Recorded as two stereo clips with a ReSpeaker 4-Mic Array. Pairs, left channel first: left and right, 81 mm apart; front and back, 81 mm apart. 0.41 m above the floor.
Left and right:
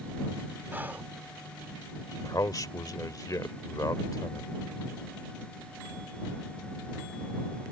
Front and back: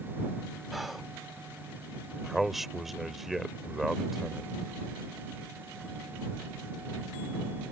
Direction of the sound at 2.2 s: 95° left.